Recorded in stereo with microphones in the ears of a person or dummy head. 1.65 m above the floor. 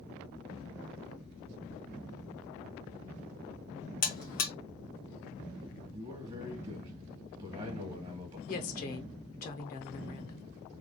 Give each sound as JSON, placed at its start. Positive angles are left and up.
{"t": 4.0, "sound": "a buzzer", "side_deg": 40, "distance_m": 1.1}
{"t": 5.9, "sound": "a man speaking", "side_deg": -25, "distance_m": 1.5}
{"t": 8.5, "sound": "a woman speaking", "side_deg": 45, "distance_m": 0.8}